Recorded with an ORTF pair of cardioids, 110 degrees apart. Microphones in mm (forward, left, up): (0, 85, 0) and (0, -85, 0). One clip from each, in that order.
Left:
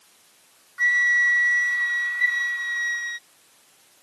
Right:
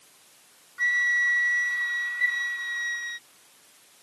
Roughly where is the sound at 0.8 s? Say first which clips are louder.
Left 4 dB; ahead.